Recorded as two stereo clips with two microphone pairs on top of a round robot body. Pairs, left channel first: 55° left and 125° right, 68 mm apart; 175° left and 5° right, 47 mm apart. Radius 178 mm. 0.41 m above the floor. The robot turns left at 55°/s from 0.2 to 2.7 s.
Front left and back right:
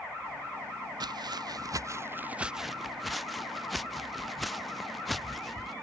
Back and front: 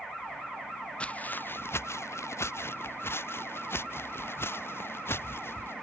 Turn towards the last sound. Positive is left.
turn(degrees=145)